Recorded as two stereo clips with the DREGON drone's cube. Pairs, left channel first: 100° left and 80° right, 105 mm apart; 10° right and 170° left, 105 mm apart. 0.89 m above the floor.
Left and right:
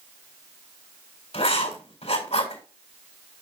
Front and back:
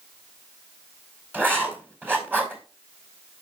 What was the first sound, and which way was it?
Writing, 100° left.